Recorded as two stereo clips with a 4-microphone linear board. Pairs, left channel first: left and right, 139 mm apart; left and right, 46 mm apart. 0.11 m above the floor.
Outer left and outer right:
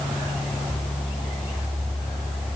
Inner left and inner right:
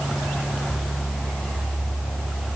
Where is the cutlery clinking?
No cutlery clinking in this recording.